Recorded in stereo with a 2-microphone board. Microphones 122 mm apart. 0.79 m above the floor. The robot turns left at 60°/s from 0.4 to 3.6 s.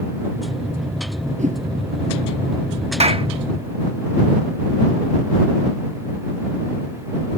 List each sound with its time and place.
1.4 s a whoosh: 80° right; by 1.6 s 85° right
3.0 s a clap: 60° right (ahead or behind); by 3.3 s 45° right (ahead or behind)